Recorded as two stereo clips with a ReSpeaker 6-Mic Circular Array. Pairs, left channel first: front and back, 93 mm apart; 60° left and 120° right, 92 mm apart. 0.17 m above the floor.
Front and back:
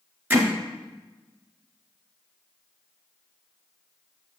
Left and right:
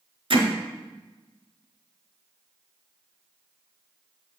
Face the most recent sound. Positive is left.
turn(degrees=-115)